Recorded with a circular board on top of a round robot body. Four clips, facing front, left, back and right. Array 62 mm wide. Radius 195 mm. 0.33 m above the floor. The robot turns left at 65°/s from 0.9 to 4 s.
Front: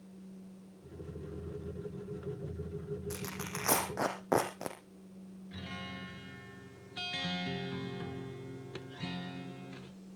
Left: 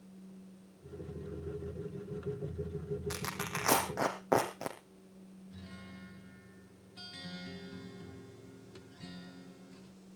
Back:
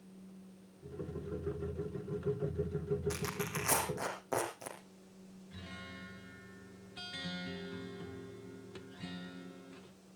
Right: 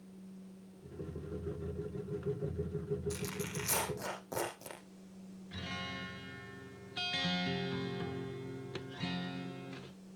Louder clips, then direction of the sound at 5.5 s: Right 10 dB, front 5 dB; 60° right.